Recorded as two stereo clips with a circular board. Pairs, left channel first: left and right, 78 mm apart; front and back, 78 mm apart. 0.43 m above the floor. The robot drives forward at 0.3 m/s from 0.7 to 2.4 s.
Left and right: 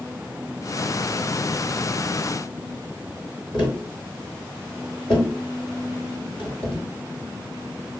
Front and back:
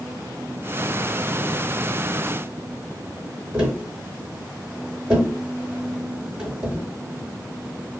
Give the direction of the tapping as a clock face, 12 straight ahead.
8 o'clock.